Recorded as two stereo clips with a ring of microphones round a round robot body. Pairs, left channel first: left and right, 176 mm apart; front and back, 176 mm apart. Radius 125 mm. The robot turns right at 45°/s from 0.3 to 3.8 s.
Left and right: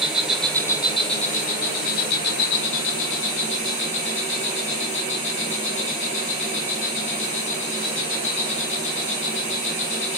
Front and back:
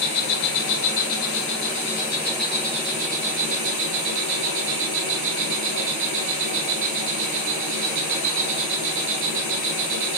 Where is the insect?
5° right, 0.9 m; by 10.2 s 155° left, 0.9 m.